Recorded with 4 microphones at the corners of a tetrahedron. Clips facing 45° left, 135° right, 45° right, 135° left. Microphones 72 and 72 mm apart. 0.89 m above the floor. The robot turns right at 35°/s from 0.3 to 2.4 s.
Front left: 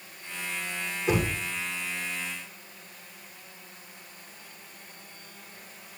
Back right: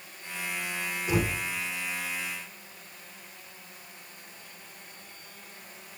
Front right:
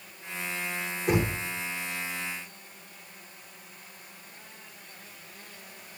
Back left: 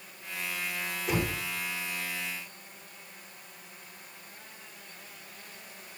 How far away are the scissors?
No scissors in this recording.